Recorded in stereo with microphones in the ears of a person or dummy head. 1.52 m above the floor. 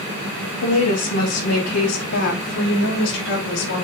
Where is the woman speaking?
80° left, 1.7 m; by 3.9 s 55° left (ahead or behind), 4 m.